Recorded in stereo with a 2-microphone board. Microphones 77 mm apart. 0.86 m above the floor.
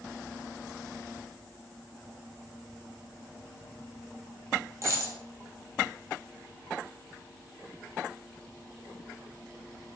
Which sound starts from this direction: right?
A dropped coin, at 4.8 s.